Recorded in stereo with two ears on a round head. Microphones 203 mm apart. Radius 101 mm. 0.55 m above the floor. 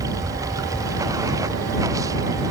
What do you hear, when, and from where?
0.0 s running water: 15° right (ahead or behind)